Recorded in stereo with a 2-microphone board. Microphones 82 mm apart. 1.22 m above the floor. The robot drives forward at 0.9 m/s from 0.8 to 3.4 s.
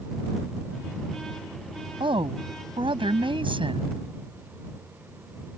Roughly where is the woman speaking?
Right.